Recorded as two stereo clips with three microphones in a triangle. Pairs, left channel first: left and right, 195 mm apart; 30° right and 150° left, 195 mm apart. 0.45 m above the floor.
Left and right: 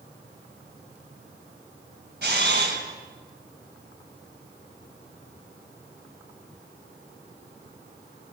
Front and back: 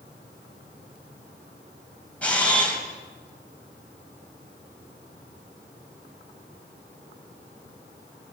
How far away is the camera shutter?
About 3.5 m.